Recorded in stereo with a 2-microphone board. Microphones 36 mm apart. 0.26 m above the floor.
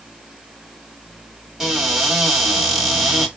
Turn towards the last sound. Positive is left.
turn(degrees=-15)  # may be behind; listen again after turning